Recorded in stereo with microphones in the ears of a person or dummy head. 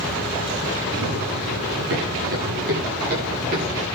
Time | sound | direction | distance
0.9 | running footsteps | 60° right (ahead or behind) | 7 m